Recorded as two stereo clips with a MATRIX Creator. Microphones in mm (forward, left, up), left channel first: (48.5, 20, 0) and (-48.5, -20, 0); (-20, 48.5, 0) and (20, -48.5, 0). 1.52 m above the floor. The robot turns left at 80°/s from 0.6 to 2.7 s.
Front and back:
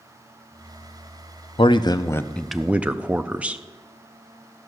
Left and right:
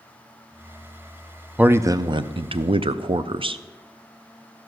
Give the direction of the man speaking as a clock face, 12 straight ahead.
12 o'clock.